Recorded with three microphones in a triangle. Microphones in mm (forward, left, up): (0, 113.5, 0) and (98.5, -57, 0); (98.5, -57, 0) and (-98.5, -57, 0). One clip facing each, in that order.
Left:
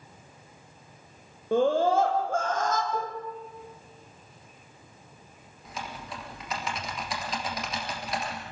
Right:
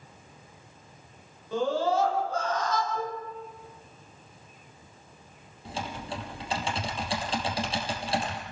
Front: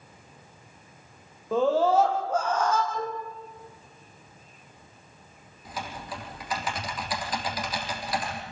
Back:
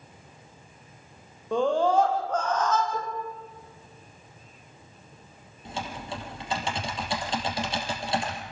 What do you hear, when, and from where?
1.5 s a scream: 85° left, 7 m; by 2.8 s 80° left, 6.5 m
2.9 s dishes clattering: 135° left, 10 m
5.7 s typing on a keyboard: 120° right, 4.5 m